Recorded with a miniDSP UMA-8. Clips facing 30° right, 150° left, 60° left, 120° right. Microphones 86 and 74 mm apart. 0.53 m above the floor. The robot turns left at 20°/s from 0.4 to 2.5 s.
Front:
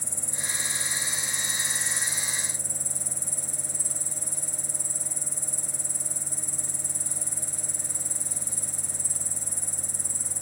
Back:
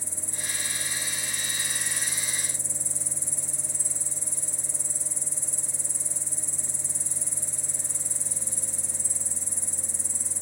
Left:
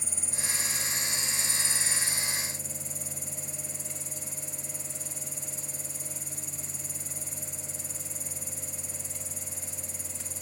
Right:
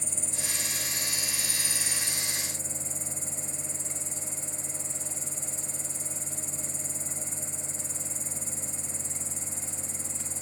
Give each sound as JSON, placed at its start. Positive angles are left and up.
{"t": 0.0, "sound": "an insect", "azimuth_deg": -20}